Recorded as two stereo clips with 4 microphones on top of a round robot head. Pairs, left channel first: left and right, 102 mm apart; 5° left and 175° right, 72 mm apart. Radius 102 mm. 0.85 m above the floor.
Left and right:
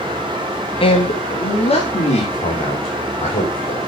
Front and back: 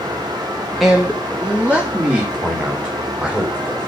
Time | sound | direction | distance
0.8 | a man speaking | 100° left | 1.4 m